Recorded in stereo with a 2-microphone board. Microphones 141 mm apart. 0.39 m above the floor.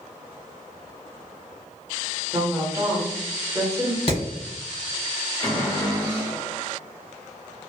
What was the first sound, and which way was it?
A woman speaking, 25° right (ahead or behind).